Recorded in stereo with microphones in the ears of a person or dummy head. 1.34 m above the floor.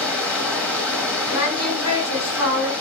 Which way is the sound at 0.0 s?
5° left (ahead or behind).